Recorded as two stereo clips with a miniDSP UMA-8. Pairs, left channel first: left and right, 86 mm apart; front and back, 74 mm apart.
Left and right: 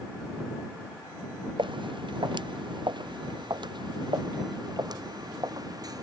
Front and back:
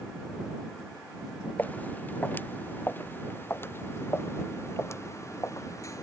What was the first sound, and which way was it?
Footsteps, 65° right.